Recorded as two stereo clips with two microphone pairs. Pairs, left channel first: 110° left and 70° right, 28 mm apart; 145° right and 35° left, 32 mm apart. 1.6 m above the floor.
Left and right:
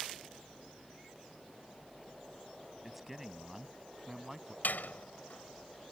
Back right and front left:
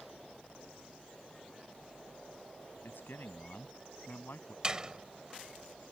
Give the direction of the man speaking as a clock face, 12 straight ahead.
5 o'clock.